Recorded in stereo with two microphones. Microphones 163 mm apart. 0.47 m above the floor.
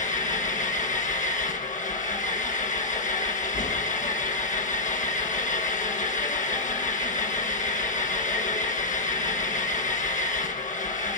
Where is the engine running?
50° left (ahead or behind), 3.5 m.